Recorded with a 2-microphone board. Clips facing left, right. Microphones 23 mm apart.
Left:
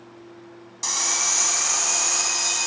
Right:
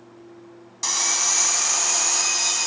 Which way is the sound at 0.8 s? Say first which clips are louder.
Right 1 dB; 15° right (ahead or behind).